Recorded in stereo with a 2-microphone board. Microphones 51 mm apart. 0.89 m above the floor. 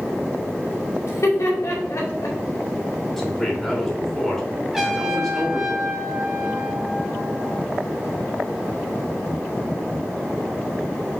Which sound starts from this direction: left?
Laughter, at 1.0 s.